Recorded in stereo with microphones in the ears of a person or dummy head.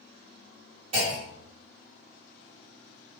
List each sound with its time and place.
0.9 s a clunk: 35° right (ahead or behind), 1.4 m